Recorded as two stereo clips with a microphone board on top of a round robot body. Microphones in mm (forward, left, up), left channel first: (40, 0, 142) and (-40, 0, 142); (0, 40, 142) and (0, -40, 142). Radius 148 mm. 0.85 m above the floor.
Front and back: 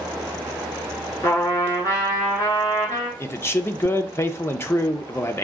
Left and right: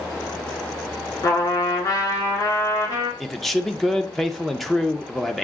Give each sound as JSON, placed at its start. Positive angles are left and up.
{"t": 1.2, "sound": "a trumpet", "azimuth_deg": 50, "distance_m": 3.0}
{"t": 3.2, "sound": "a man speaking", "azimuth_deg": 5, "distance_m": 0.7}